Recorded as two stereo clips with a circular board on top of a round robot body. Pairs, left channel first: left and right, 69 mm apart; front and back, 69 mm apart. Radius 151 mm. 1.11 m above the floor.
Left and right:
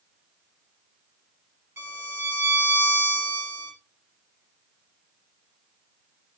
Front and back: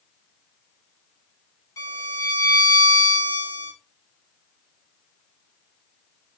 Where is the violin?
35° right, 7.5 m.